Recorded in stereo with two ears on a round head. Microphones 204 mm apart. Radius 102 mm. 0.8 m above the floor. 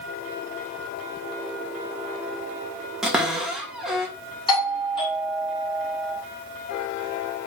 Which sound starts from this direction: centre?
A cupboard door, at 3.0 s.